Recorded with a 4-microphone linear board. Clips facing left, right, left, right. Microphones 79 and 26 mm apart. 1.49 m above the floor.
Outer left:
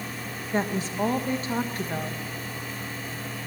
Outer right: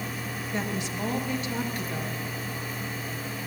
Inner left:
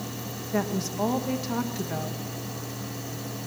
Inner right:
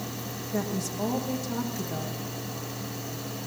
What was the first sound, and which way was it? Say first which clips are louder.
A woman speaking: outer left 6 dB, inner left 3 dB; 40° left (ahead or behind).